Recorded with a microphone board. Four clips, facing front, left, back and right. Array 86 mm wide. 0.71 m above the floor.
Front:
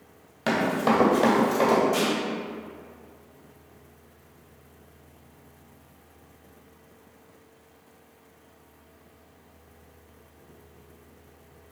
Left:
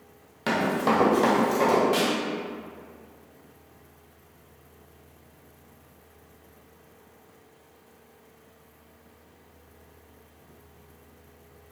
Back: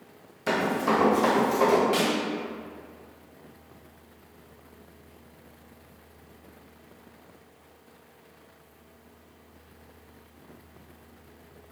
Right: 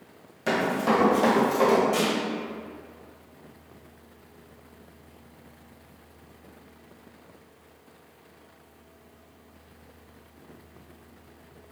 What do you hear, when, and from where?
0.5 s running footsteps: 20° left, 1.4 m; by 1.8 s 25° right, 1.3 m
1.9 s a snare drum: 155° left, 0.7 m